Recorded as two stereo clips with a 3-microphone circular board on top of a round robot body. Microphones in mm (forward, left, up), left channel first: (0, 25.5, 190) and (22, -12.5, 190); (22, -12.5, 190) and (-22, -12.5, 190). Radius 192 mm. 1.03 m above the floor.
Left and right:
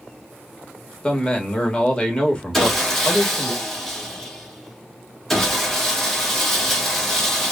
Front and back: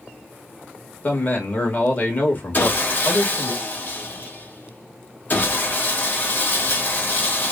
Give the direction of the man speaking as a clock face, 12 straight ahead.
10 o'clock.